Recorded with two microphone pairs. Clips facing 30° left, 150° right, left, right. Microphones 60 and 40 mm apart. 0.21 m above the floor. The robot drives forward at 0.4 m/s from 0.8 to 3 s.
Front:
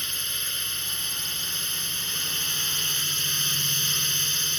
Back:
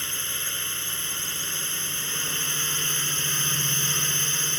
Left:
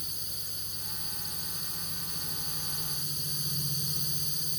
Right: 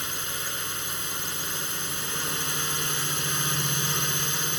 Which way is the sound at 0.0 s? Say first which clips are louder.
Back 1 dB, right 11 dB; 75° right.